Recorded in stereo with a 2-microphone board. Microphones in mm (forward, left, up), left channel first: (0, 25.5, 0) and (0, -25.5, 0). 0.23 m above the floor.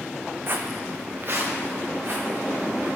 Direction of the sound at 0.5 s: 45° right (ahead or behind).